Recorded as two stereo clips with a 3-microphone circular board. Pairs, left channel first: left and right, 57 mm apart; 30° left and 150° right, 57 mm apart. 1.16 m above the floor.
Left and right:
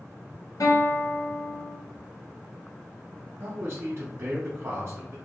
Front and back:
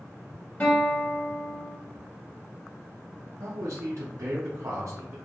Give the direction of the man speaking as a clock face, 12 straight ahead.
4 o'clock.